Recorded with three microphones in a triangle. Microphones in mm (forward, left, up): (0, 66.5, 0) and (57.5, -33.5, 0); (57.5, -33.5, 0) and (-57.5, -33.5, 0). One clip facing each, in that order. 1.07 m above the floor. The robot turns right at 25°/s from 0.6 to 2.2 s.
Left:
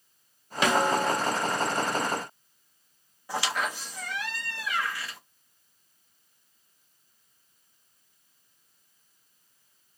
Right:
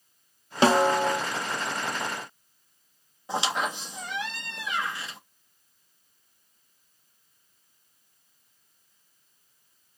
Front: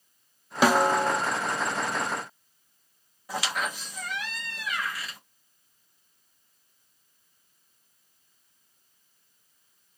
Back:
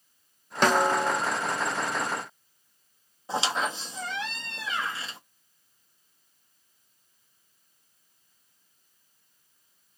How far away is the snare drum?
About 0.5 m.